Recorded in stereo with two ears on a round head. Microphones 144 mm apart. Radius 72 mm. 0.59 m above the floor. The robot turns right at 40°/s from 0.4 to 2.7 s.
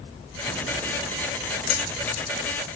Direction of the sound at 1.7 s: 65° left (ahead or behind).